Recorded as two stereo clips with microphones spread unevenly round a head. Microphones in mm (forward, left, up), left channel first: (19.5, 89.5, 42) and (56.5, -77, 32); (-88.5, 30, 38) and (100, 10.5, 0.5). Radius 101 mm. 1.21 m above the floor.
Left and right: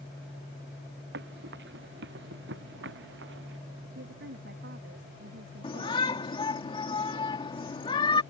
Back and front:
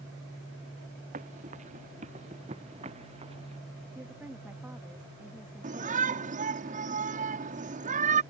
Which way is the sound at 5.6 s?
45° left.